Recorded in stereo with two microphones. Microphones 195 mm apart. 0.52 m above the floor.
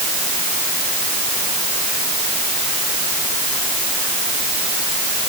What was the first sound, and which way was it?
Only background noise.